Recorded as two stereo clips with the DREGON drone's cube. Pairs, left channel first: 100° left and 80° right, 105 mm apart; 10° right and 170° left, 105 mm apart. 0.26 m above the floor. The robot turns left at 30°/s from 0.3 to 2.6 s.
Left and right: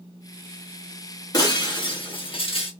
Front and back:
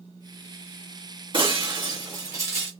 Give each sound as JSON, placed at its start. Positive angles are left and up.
{"t": 1.3, "sound": "breaking glass", "azimuth_deg": 145, "distance_m": 1.8}